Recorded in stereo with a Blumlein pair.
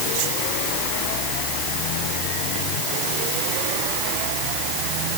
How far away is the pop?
No pop in this recording.